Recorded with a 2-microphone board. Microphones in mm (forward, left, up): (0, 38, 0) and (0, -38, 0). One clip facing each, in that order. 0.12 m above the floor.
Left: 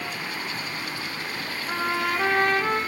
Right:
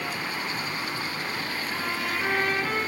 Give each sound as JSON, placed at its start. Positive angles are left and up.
{"t": 1.7, "sound": "a trumpet", "side_deg": 65, "distance_m": 3.0}